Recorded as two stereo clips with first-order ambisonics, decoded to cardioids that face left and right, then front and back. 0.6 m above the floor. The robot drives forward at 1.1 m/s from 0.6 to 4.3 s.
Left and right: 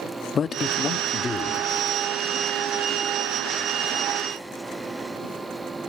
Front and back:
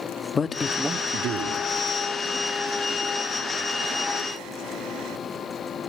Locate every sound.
0.3 s a man speaking: 55° left, 0.6 m; by 1.7 s 165° left, 1.2 m